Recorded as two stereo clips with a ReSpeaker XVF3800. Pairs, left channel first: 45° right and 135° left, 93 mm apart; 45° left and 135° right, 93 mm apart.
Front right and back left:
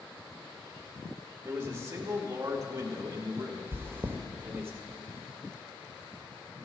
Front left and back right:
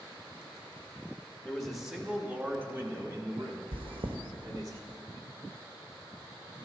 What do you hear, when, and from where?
1.4 s a man speaking: 115° left, 1.1 m; by 4.7 s 170° right, 2 m
3.7 s chewing: 160° right, 0.8 m